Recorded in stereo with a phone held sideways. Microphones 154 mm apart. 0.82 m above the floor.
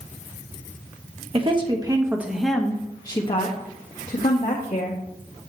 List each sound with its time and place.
1.3 s a woman speaking: 35° right (ahead or behind), 1.3 m; by 5.0 s 65° left (ahead or behind), 2 m